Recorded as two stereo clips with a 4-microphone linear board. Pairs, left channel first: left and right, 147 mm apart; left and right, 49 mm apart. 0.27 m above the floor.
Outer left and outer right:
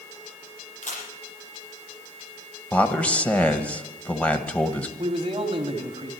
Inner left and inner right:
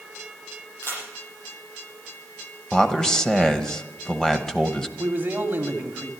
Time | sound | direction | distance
0.8 | a camera shutter | 60° left (ahead or behind) | 8 m
2.7 | a man speaking | 10° left (ahead or behind) | 1.0 m
5.0 | a man speaking | 40° right (ahead or behind) | 1.7 m